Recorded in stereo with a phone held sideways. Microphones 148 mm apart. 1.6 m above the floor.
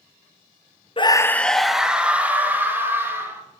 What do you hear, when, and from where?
1.0 s a scream: 40° left (ahead or behind), 0.6 m; by 3.4 s 15° right (ahead or behind), 3.5 m